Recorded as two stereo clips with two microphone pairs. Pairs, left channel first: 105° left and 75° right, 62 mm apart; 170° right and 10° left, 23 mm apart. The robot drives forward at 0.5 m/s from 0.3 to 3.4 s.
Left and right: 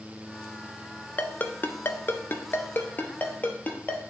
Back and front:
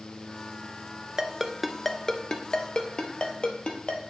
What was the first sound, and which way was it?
A ringtone, 70° left.